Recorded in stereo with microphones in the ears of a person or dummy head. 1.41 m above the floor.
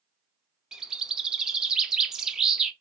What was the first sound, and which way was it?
A bird, centre (ahead or behind).